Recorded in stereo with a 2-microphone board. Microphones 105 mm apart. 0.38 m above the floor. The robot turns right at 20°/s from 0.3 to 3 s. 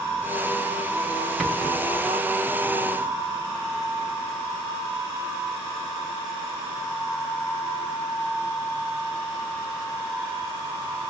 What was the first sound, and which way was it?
A rattle, centre (ahead or behind).